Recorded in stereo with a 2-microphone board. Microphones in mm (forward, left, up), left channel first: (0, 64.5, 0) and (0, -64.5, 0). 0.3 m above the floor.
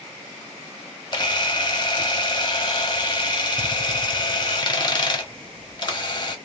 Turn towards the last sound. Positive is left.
turn(degrees=35)  # may be behind; listen again after turning